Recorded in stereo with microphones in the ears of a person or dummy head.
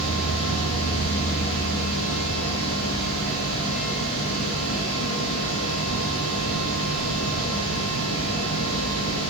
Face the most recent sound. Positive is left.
turn(degrees=80)